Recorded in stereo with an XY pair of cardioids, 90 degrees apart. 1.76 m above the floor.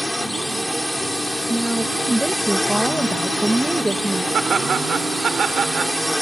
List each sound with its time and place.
0.0 s a drone: 5° left
1.5 s a woman speaking: 5° right
4.3 s laughter: 50° right